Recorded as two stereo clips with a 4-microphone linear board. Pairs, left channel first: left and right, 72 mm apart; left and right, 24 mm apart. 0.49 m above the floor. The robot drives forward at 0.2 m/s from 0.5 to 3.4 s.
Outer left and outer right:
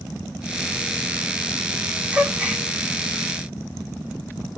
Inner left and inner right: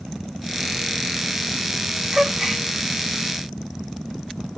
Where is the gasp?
20° right (ahead or behind), 0.7 m; by 2.6 s 15° right (ahead or behind), 0.8 m.